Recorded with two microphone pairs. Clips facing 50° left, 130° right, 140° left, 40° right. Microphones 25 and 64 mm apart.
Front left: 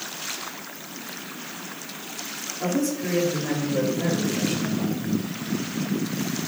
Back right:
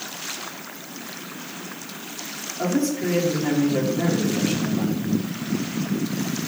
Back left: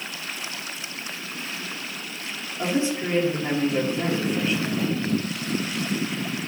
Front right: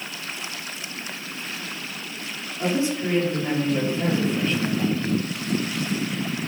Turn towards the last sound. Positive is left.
turn(degrees=-140)